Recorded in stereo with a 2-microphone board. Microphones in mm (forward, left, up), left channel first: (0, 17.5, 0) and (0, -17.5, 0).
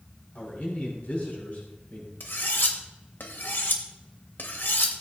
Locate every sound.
0.3 s a man speaking: 50° left (ahead or behind), 6.5 m
2.2 s cutlery clinking: 75° left (ahead or behind), 2.5 m